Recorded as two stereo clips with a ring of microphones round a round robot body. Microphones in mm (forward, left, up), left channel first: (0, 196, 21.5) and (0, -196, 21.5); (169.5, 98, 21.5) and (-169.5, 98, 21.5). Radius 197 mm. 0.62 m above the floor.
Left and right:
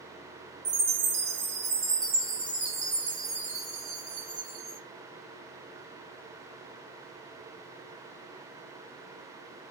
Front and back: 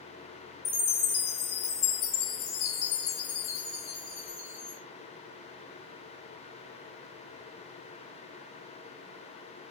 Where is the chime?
35° right, 4.5 m.